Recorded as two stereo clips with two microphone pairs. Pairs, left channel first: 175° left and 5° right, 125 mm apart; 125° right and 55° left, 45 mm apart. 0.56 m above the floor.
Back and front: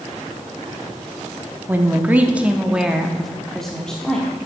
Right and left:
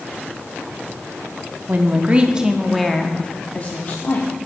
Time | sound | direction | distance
1.7 | a woman speaking | 60° left | 1.0 m